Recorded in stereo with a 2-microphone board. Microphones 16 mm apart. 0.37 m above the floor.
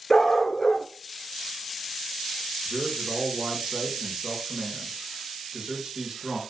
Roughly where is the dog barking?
Left.